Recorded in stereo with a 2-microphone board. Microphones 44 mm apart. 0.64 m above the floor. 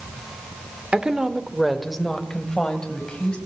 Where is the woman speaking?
30° right (ahead or behind), 1.7 m; by 3.4 s 20° left (ahead or behind), 4 m.